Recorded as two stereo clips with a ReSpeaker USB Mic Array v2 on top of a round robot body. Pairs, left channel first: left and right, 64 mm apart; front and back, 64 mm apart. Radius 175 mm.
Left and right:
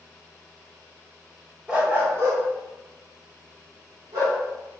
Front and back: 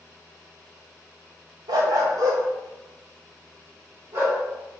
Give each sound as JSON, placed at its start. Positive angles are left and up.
{"t": 1.7, "sound": "a dog barking", "azimuth_deg": -170, "distance_m": 0.7}